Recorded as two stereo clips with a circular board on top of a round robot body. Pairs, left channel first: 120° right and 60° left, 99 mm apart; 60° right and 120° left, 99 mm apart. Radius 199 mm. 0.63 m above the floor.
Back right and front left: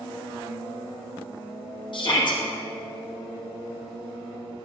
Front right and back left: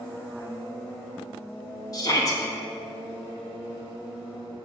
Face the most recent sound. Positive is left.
turn(degrees=-105)